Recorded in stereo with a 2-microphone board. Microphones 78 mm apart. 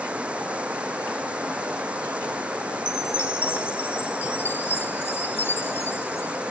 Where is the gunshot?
I don't hear a gunshot.